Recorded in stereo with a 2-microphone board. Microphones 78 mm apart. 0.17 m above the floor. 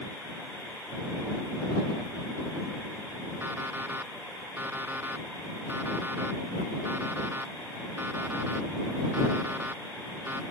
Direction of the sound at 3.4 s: 25° right (ahead or behind).